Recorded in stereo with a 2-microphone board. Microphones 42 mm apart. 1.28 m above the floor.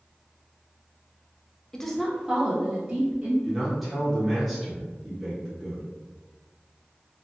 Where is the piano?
I don't hear a piano.